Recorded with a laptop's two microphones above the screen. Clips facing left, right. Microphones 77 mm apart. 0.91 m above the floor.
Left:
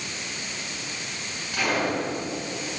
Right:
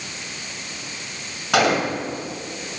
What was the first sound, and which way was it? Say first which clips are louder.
A gunshot: right 6 dB; 80° right.